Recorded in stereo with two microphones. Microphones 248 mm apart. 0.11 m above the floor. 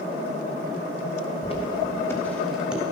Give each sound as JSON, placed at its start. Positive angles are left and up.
{"t": 1.4, "sound": "footsteps", "side_deg": 25, "distance_m": 2.5}